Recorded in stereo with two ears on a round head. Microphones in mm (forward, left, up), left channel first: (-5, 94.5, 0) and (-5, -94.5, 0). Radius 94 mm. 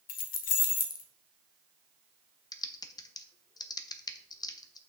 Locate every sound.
0.1 s keys jangling: 40° left (ahead or behind), 0.9 m
2.5 s typing on a keyboard: 20° left (ahead or behind), 0.5 m